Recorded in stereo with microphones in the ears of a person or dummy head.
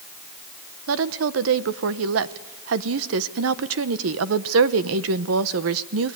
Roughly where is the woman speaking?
Right.